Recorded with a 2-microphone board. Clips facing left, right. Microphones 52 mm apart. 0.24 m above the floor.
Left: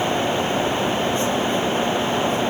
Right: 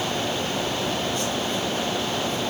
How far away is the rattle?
I don't hear a rattle.